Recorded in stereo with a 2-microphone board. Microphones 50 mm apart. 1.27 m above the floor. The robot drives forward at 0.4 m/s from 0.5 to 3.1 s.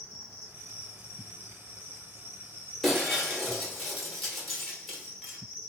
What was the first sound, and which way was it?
An insect, 50° left (ahead or behind).